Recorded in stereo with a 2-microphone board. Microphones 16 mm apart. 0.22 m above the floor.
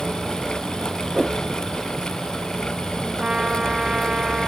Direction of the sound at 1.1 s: 5° right (ahead or behind).